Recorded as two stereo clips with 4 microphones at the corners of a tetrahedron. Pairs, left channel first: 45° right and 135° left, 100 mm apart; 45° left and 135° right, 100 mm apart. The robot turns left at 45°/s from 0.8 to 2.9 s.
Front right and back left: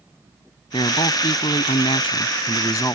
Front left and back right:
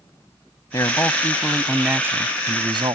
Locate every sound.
0.7 s a man speaking: 10° right; by 3.0 s 105° right